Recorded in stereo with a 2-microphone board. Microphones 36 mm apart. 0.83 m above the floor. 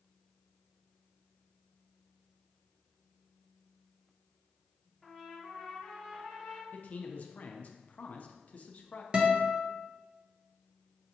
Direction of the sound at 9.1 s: 30° right (ahead or behind).